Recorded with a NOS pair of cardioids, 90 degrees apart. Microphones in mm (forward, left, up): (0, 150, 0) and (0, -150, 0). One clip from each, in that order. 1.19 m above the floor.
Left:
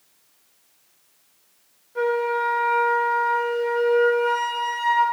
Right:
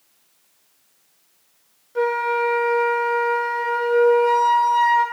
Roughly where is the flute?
Ahead right.